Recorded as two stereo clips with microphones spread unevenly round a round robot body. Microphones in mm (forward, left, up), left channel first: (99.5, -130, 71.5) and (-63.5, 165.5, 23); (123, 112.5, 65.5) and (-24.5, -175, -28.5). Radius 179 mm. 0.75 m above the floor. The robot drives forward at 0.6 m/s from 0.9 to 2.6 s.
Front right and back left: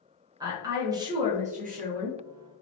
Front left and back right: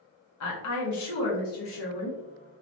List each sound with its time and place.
0.4 s a woman speaking: 60° left, 1.1 m; by 2.2 s 135° left, 1.2 m